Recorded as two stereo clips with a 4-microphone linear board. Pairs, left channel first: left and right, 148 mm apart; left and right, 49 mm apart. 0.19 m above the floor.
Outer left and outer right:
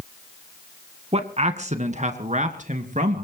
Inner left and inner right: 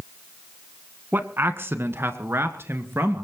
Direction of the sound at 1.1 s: 45° right (ahead or behind).